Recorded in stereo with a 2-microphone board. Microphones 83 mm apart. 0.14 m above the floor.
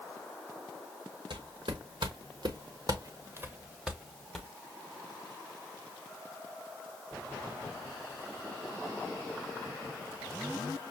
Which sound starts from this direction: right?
Footsteps, at 1.3 s.